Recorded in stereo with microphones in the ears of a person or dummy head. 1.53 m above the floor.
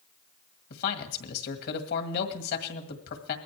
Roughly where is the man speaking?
Left.